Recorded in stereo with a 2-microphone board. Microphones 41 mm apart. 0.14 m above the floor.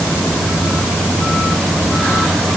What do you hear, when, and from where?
Only background noise.